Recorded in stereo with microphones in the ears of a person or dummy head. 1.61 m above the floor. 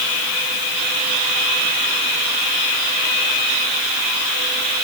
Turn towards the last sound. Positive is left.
No sound to turn to.